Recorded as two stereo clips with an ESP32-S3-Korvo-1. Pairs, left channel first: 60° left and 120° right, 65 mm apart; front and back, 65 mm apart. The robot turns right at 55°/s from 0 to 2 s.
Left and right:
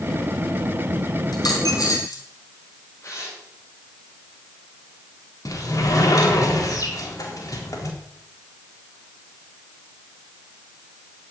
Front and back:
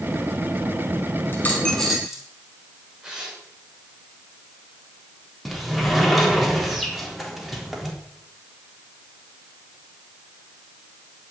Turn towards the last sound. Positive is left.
turn(degrees=90)